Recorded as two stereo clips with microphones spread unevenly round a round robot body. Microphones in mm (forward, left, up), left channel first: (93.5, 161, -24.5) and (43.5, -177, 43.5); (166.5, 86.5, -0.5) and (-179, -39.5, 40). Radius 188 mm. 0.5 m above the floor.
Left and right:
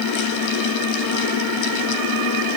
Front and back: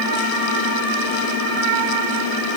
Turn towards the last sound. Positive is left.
No sound to turn to.